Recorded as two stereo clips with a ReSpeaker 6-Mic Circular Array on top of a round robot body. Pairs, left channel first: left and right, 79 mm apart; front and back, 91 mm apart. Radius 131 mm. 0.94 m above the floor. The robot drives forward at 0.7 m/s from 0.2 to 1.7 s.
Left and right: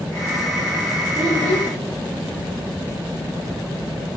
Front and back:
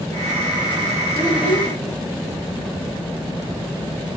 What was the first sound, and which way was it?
A child speaking, 115° right.